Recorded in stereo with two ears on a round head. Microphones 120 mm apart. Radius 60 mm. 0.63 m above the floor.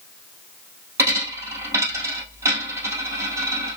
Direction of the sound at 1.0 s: 20° right (ahead or behind).